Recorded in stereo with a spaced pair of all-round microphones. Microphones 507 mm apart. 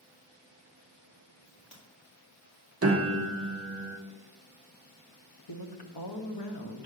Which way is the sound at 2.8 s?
30° right (ahead or behind).